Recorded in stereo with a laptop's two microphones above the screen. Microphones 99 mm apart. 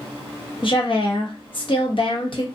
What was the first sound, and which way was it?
A woman speaking, 55° left (ahead or behind).